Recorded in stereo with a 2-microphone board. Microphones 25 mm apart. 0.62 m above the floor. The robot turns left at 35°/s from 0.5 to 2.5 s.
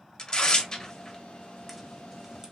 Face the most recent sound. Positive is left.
turn(degrees=-25)  # may be behind; listen again after turning